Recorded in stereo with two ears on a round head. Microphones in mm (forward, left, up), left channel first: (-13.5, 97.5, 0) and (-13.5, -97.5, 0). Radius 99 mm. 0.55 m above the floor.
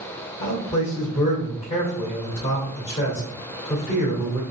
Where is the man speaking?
10° left (ahead or behind), 1.9 m.